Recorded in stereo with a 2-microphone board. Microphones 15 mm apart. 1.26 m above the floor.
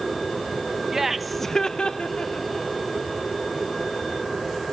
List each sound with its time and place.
0.9 s laughter: 20° right (ahead or behind), 1.0 m; by 2.7 s 80° left, 1.6 m